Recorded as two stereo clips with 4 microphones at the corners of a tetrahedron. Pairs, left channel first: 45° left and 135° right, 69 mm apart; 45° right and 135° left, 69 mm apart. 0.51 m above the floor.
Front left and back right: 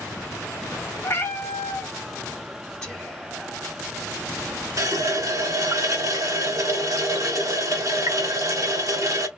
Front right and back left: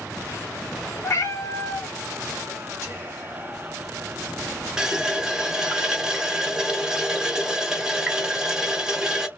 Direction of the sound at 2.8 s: 30° right.